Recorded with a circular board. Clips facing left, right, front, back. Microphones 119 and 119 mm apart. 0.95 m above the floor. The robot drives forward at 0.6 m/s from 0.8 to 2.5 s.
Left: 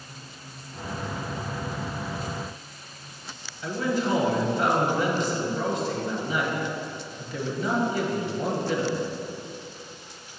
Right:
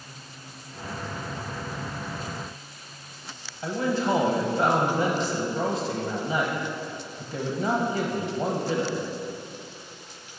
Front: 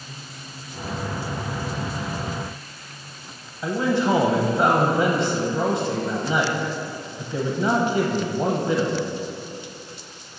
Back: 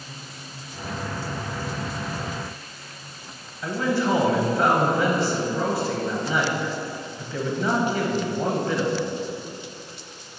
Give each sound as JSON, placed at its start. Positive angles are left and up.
{"t": 3.6, "sound": "a man speaking", "azimuth_deg": -55, "distance_m": 0.8}